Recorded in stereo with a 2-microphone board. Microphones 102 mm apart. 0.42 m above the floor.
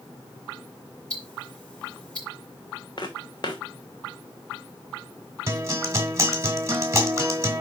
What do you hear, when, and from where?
1.1 s ticking: 10° left (ahead or behind), 6 m
3.0 s footsteps: 45° left (ahead or behind), 1.4 m
5.5 s a guitar: 30° right (ahead or behind), 2 m